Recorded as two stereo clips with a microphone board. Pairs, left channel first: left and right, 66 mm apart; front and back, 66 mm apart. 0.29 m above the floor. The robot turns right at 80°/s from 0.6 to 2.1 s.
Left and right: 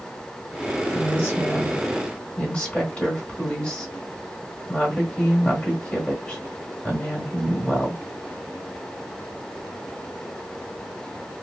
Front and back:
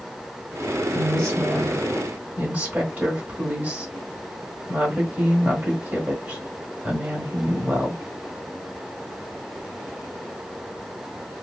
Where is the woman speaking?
50° left, 1.6 m; by 8.0 s 145° left, 1.6 m.